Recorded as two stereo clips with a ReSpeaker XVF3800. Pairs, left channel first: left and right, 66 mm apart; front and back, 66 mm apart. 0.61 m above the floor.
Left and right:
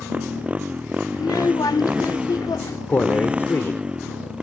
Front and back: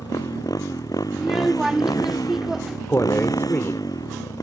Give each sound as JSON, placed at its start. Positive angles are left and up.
{"t": 0.0, "sound": "a motorcycle", "azimuth_deg": -20}
{"t": 1.1, "sound": "a child speaking", "azimuth_deg": 95}
{"t": 2.9, "sound": "a man speaking", "azimuth_deg": 45}